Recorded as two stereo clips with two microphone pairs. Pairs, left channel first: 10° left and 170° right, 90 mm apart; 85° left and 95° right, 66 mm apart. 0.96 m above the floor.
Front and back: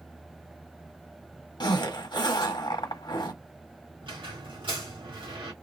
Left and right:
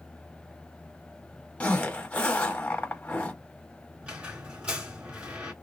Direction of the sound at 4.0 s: 165° right.